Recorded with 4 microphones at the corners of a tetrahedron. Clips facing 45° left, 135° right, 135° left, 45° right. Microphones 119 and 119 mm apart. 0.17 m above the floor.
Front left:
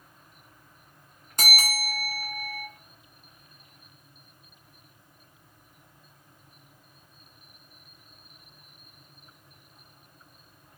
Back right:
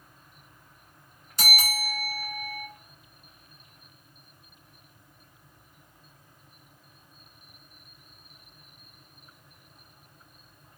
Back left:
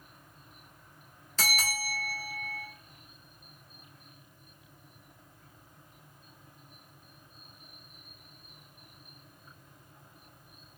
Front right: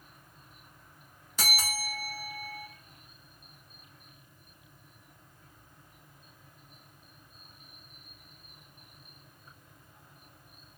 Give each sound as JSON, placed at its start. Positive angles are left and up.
{"t": 1.4, "sound": "a bell", "azimuth_deg": 30, "distance_m": 1.6}